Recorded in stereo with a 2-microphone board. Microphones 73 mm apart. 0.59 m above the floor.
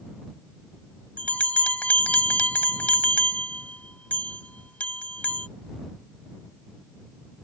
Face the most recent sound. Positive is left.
turn(degrees=20)  # may be behind; listen again after turning